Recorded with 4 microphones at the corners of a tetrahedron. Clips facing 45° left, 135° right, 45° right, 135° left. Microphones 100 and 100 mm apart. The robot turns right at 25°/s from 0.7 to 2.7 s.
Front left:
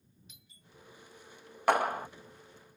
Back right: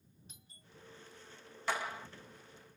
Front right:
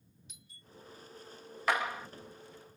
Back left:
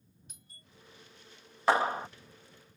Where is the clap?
75° left; by 2.1 s 85° left.